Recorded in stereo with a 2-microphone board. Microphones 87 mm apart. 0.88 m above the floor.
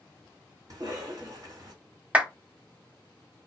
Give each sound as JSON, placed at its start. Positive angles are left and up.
{"t": 0.7, "sound": "a cough", "side_deg": -45, "distance_m": 1.7}
{"t": 2.1, "sound": "a clap", "side_deg": -15, "distance_m": 1.0}